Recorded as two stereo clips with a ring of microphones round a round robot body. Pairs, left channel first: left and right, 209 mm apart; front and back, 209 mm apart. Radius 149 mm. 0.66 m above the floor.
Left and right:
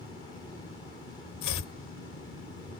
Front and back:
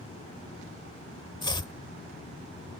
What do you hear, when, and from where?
1.4 s chopping: 70° left